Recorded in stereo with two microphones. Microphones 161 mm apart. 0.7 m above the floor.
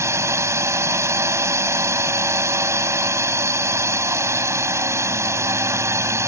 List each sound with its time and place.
0.0 s a drone: 15° right (ahead or behind)